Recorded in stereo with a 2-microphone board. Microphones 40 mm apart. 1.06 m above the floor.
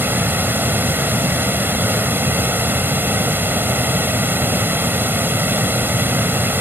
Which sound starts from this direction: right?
Running water, at 0.0 s.